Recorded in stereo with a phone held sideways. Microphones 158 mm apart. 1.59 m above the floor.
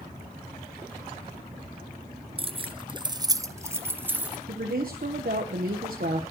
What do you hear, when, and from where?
2.4 s keys jangling: 35° right (ahead or behind), 0.6 m; by 4.4 s 10° right (ahead or behind), 1.2 m
4.5 s a woman speaking: 65° right (ahead or behind), 1.3 m